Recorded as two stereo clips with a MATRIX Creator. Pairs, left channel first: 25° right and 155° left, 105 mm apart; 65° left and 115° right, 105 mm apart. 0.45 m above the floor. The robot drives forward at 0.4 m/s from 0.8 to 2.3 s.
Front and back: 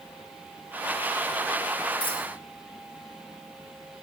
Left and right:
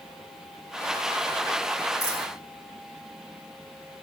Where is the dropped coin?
10° left, 2.5 m; by 2.3 s 15° left, 2 m.